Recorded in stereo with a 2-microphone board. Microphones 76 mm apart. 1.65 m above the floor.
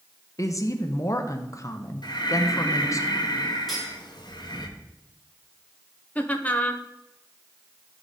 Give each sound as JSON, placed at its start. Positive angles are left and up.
{"t": 0.4, "sound": "a woman speaking", "side_deg": 45, "distance_m": 0.7}
{"t": 2.0, "sound": "breathing", "side_deg": 75, "distance_m": 0.9}
{"t": 3.7, "sound": "cutlery clinking", "side_deg": 0, "distance_m": 4.0}
{"t": 6.2, "sound": "laughter", "side_deg": 20, "distance_m": 0.7}